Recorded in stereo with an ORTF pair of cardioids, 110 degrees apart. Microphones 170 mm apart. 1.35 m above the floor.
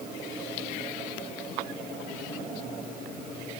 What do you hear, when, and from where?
Only background noise.